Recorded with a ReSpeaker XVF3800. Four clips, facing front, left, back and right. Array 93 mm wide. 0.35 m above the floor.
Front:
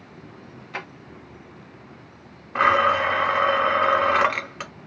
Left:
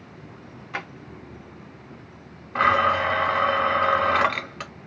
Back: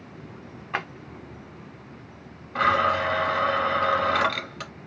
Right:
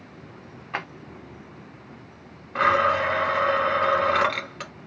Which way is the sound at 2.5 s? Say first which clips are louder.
Left 1 dB, front 3 dB; 20° left.